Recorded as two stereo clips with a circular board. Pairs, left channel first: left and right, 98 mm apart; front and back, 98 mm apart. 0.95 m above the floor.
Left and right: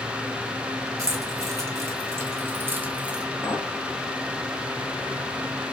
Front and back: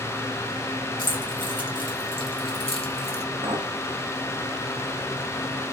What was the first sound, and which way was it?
Keys jangling, 35° right.